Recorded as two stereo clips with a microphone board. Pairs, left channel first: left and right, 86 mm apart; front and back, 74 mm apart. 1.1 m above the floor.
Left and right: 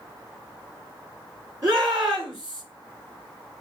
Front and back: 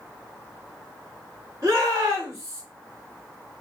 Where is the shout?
130° right, 2.5 m.